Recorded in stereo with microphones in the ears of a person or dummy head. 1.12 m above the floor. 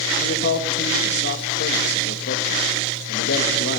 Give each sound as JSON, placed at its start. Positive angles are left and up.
{"t": 0.2, "sound": "a man speaking", "side_deg": 60, "distance_m": 1.1}